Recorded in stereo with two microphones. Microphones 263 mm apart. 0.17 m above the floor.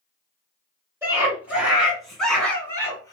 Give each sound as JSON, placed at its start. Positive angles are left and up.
{"t": 1.0, "sound": "a scream", "side_deg": -10, "distance_m": 2.0}